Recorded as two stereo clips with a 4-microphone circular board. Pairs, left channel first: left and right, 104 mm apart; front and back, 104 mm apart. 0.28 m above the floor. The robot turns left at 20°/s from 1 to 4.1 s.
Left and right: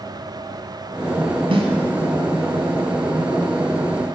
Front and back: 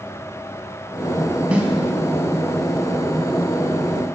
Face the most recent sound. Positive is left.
turn(degrees=-155)